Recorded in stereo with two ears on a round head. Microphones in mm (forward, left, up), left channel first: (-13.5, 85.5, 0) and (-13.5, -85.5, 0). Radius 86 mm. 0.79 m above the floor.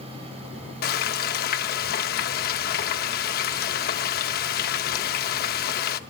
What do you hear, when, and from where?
0.8 s frying: 55° left (ahead or behind), 0.7 m